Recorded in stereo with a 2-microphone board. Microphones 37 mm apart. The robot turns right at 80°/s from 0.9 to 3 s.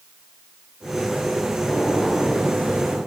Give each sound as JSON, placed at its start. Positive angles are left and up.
{"t": 1.7, "sound": "a gunshot", "azimuth_deg": 145, "distance_m": 10.0}